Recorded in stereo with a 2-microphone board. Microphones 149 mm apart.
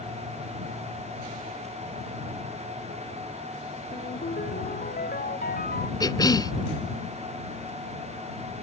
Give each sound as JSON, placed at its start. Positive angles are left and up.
{"t": 3.9, "sound": "a ringtone", "side_deg": 85}
{"t": 6.0, "sound": "a cough", "side_deg": 25}